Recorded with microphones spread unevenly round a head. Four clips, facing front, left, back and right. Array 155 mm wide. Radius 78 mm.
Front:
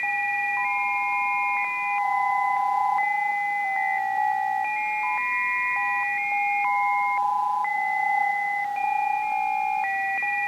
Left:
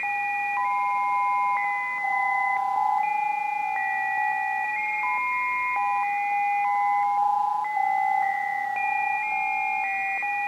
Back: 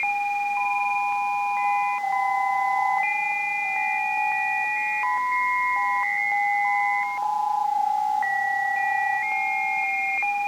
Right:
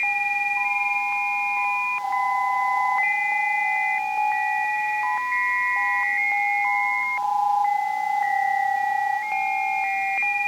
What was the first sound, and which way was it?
Only background noise.